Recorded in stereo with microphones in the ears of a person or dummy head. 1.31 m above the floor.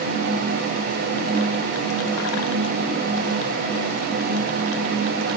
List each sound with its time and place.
Only background noise.